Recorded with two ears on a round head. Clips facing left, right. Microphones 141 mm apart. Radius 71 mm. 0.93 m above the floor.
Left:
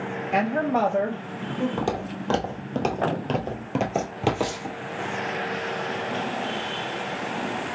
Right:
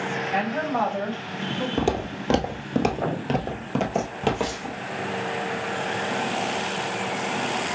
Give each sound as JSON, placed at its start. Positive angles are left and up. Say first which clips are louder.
{"t": 0.3, "sound": "a woman speaking", "louder": "left 4 dB", "side_deg": 50, "distance_m": 0.8}
{"t": 1.8, "sound": "footsteps", "louder": "right 3 dB", "side_deg": -25, "distance_m": 1.2}